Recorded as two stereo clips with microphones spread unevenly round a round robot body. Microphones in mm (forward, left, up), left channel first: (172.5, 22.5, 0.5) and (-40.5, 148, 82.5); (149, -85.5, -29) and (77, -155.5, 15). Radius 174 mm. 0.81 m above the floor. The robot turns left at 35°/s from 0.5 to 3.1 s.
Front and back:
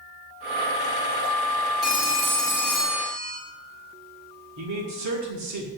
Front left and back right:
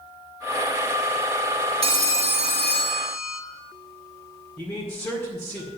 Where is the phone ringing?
120° right, 0.9 m; by 3.4 s 165° right, 0.9 m.